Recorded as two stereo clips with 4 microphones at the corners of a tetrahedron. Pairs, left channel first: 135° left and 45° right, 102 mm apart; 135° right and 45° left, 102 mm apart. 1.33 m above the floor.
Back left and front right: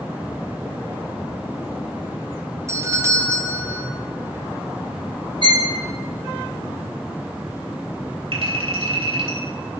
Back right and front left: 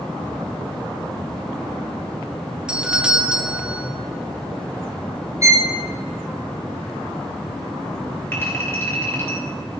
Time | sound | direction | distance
2.7 | a doorbell | 30° right | 0.5 m
5.4 | a violin | 15° right | 1.1 m
8.3 | a clink | 70° right | 3 m